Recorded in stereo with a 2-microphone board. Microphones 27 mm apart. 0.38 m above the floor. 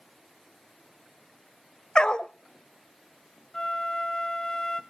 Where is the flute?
30° left (ahead or behind), 0.7 m.